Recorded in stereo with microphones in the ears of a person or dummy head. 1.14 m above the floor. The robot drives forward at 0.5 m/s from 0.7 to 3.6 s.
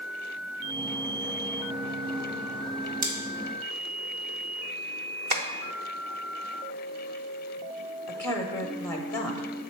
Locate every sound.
3.0 s scissors: 50° right (ahead or behind), 1.3 m
5.3 s tapping: 40° right (ahead or behind), 0.7 m
8.1 s a woman speaking: 15° left (ahead or behind), 0.6 m